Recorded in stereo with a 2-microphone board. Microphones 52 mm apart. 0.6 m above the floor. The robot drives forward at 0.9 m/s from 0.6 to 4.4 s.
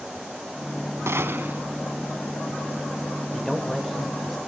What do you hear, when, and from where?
1.1 s a gunshot: 60° right (ahead or behind), 0.9 m; by 1.6 s 40° right (ahead or behind), 1.2 m
3.3 s a man speaking: centre (ahead or behind), 2.5 m